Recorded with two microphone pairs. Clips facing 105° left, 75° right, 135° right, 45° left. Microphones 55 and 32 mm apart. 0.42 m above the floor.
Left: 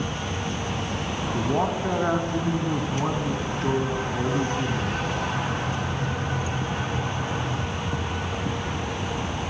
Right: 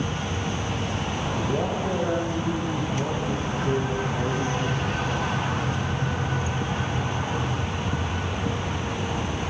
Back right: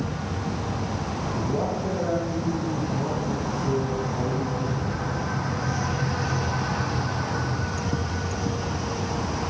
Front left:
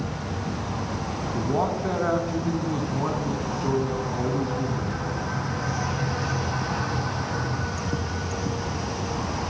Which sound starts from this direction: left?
A man speaking, at 1.3 s.